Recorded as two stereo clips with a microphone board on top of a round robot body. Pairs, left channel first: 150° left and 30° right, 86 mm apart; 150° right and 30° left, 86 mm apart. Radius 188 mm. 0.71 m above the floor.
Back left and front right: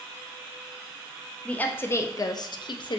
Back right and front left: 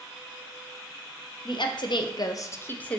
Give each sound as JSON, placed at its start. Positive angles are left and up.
{"t": 1.4, "sound": "a woman speaking", "azimuth_deg": -135, "distance_m": 0.8}